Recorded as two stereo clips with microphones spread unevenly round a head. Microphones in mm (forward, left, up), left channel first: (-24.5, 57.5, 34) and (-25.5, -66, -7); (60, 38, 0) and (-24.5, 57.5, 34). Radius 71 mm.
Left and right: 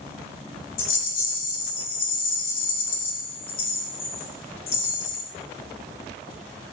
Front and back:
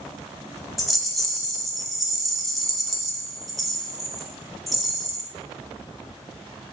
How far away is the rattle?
About 0.6 m.